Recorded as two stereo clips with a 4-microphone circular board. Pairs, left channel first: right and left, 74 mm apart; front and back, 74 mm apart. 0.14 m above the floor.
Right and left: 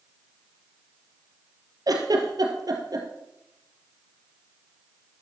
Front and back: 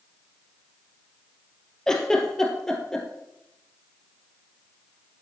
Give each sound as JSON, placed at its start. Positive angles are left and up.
{"t": 1.9, "sound": "a giggle", "azimuth_deg": 80, "distance_m": 3.0}